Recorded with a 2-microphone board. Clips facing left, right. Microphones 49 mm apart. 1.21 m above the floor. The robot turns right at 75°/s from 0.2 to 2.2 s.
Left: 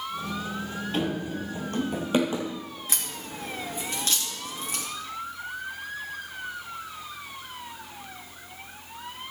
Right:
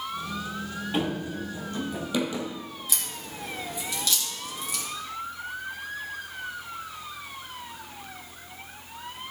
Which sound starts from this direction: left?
A crack, at 2.9 s.